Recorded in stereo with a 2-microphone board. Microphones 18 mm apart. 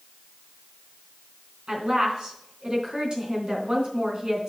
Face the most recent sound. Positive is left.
turn(degrees=-50)  # may be behind; listen again after turning